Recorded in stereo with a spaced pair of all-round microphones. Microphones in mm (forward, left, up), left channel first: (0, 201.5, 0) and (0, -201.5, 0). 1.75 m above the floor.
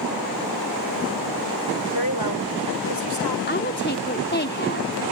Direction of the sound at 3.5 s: 25° left (ahead or behind).